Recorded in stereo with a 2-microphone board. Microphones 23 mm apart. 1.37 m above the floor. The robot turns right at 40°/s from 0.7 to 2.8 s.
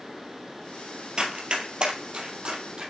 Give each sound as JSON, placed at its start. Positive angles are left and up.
{"t": 1.2, "sound": "running footsteps", "side_deg": -50, "distance_m": 2.0}